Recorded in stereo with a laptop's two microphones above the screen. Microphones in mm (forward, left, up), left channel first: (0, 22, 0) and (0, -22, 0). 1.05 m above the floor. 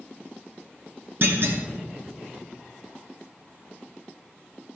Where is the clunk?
55° right (ahead or behind), 0.9 m.